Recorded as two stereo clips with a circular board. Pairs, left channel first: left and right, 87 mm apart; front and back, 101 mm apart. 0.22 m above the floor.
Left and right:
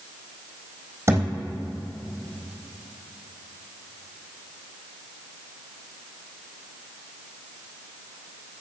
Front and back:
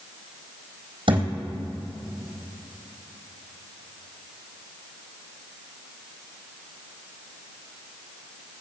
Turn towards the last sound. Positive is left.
turn(degrees=-150)